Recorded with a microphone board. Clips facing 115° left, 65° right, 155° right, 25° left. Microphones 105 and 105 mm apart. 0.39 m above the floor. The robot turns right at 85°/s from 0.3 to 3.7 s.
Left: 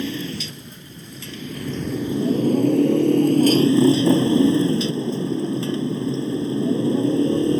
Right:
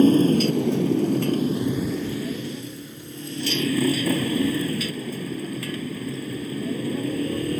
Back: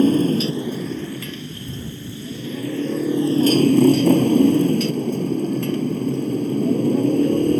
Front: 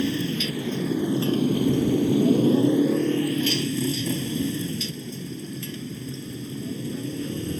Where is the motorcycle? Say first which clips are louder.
Right 12 dB, back 10 dB; 115° right; by 7.6 s 175° left.